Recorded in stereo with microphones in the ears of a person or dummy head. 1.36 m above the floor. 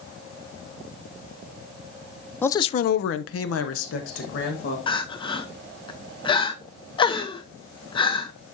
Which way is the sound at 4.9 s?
25° left (ahead or behind).